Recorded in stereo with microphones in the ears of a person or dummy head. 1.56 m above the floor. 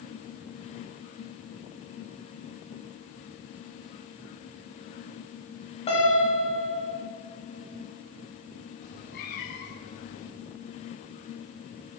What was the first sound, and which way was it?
A piano, 35° left (ahead or behind).